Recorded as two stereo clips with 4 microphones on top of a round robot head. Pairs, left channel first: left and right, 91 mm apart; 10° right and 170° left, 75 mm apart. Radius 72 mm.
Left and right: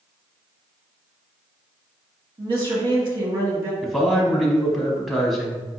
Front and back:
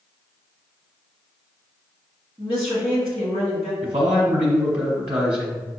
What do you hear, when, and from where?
2.4 s a woman speaking: 125° right, 1.5 m
3.8 s a man speaking: 175° right, 0.7 m